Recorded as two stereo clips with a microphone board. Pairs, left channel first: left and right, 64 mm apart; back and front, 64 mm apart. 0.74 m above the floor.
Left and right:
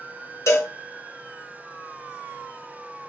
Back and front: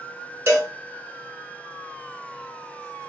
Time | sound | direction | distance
0.5 | a cowbell | 45° left | 1.4 m